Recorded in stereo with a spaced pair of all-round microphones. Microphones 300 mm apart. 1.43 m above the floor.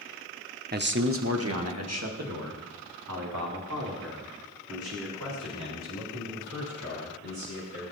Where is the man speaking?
30° right (ahead or behind), 1.0 m; by 7.8 s 70° right (ahead or behind), 9.5 m.